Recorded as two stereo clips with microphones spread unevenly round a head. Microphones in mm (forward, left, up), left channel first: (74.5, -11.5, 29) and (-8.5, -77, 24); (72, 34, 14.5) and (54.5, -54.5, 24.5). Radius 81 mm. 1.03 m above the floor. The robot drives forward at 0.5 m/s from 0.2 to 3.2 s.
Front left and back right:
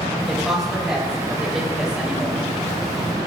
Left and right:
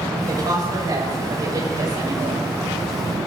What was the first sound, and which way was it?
A woman speaking, 50° right.